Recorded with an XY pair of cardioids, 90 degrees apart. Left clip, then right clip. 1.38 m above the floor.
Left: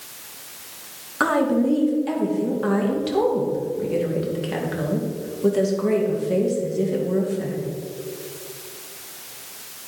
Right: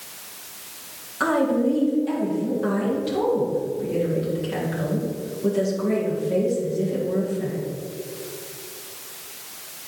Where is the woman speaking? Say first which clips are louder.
Left 1 dB; 55° left, 2 m.